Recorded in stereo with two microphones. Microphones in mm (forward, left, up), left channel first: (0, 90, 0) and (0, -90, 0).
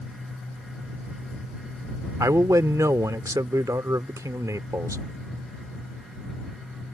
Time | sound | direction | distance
2.2 | a man speaking | 20° right (ahead or behind) | ?